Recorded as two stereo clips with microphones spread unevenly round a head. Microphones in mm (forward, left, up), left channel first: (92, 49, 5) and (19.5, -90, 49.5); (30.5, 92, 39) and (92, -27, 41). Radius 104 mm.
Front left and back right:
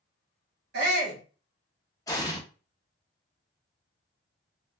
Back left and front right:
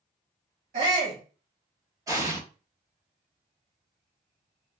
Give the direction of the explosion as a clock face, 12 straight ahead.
12 o'clock.